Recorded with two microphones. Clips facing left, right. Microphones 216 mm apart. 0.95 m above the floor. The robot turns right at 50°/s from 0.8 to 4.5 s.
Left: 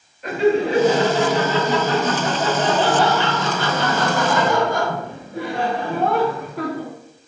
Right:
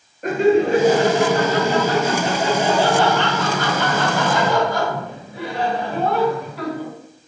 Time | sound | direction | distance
0.2 | laughter | 110° right | 0.8 m